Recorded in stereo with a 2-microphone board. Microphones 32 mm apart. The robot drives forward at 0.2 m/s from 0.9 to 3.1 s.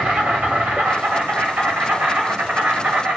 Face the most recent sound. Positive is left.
turn(degrees=-65)  # may be behind; listen again after turning